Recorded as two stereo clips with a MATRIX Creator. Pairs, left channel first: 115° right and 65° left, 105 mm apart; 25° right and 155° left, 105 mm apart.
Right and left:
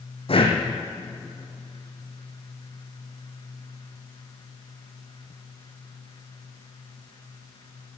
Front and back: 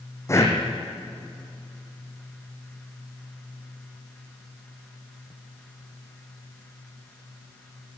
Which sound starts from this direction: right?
Breathing, at 0.3 s.